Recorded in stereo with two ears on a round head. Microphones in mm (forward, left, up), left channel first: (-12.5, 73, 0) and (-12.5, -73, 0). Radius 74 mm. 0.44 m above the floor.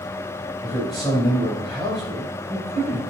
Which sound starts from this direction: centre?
A man speaking, at 0.6 s.